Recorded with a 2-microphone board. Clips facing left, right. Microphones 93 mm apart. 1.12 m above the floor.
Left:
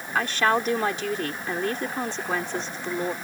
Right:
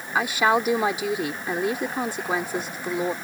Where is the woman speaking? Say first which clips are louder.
Right 2 dB; 10° right (ahead or behind).